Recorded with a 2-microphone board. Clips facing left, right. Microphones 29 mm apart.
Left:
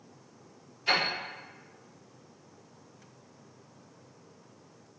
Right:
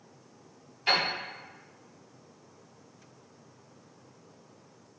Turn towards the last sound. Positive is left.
turn(degrees=-85)